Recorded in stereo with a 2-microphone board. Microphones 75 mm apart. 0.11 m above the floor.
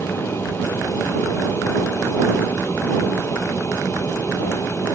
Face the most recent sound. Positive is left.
turn(degrees=35)  # may be behind; listen again after turning